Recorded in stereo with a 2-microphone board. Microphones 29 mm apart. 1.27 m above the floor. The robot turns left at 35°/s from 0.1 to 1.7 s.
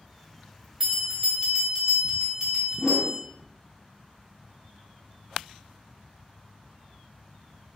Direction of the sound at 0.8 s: 15° right (ahead or behind).